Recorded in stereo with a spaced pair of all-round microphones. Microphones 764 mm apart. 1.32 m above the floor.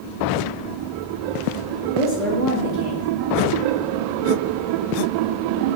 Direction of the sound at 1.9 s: 20° left (ahead or behind).